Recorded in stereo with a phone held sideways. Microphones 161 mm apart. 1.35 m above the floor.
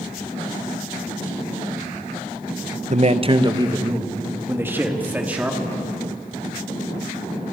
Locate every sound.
2.9 s a man speaking: 50° right (ahead or behind), 0.9 m; by 5.7 s 10° right (ahead or behind), 3 m